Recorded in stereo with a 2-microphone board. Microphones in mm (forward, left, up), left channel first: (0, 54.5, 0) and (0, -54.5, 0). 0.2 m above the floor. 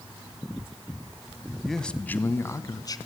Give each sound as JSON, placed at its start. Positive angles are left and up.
{"t": 1.6, "sound": "a man speaking", "side_deg": 0, "distance_m": 1.4}